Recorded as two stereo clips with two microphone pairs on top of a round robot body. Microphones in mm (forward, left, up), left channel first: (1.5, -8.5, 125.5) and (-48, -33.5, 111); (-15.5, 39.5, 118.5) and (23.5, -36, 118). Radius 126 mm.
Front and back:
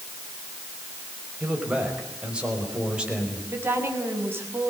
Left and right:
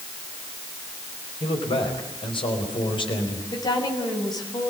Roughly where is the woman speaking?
Behind.